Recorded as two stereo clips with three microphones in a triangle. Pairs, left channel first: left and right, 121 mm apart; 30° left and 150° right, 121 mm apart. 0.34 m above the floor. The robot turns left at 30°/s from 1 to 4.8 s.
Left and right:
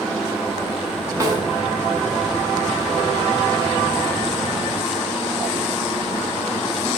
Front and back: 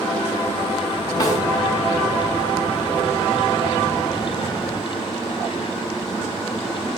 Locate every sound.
1.2 s a snare drum: 30° right, 1.4 m; by 1.4 s 35° right, 1.4 m